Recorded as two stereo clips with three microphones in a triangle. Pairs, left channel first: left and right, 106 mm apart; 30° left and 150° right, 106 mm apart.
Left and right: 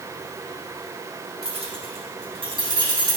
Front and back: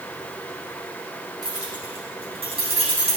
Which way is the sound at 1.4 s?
105° right.